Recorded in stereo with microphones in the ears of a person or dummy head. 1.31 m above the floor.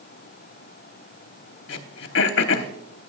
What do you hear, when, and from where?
1.7 s throat clearing: 70° left (ahead or behind), 1.0 m